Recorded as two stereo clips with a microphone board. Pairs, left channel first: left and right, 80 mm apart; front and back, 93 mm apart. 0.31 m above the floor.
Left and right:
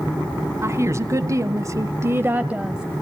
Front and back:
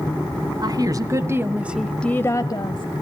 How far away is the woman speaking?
About 2.5 m.